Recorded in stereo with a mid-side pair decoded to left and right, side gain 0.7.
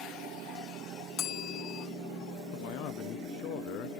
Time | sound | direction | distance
1.2 | a bell | 50° left | ?
2.5 | a man speaking | 60° left | ?